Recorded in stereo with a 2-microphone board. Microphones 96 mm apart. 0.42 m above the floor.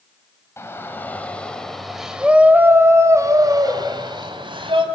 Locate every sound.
0.6 s a shout: 25° left (ahead or behind), 2.5 m; by 4.8 s 60° right (ahead or behind), 3 m